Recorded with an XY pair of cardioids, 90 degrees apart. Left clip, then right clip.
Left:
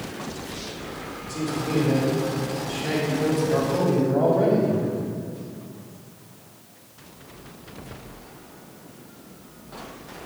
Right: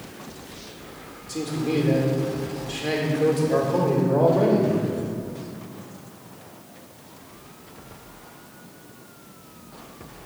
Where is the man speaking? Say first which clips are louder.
Right 1 dB; 45° right, 3.5 m.